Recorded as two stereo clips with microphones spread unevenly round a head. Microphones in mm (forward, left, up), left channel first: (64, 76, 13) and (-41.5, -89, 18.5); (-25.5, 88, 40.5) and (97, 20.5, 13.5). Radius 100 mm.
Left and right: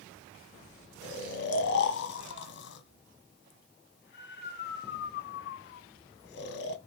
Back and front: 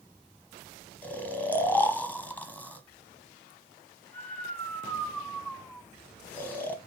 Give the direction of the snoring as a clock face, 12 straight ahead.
10 o'clock.